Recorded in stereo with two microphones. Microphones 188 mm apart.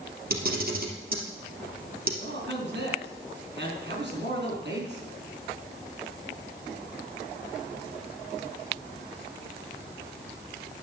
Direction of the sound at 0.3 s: 55° right (ahead or behind).